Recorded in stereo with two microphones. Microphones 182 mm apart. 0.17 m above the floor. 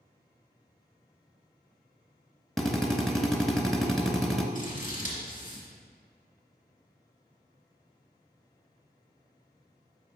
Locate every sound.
2.6 s a drill: centre (ahead or behind), 0.7 m
4.5 s scissors: 50° left (ahead or behind), 2.5 m